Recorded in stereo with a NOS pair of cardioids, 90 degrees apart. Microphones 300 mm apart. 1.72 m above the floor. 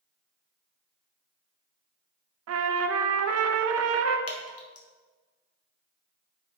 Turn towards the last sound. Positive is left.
turn(degrees=50)